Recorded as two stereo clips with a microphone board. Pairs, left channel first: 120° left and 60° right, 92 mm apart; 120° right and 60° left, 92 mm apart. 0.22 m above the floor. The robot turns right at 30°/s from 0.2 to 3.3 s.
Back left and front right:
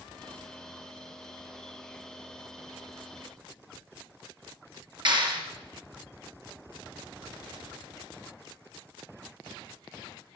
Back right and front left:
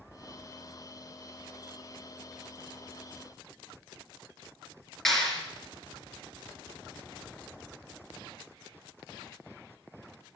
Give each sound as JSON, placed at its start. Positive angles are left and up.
{"t": 5.0, "sound": "a clap", "azimuth_deg": -30, "distance_m": 3.0}